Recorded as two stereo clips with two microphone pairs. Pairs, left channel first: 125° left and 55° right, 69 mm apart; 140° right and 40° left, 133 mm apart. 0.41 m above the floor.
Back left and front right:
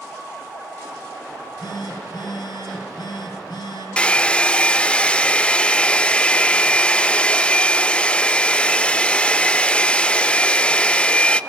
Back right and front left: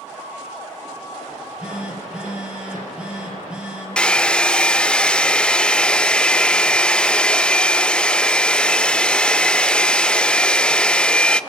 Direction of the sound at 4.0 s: 160° left.